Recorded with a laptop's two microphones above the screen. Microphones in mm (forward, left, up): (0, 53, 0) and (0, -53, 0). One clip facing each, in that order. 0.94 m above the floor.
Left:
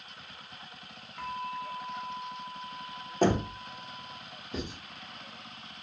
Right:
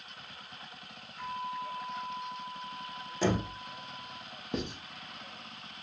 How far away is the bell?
About 0.7 m.